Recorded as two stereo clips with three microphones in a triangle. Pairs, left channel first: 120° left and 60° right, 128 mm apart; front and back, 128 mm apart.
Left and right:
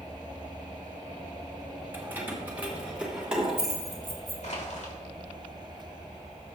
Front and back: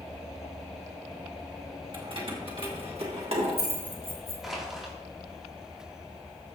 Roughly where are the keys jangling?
Behind right.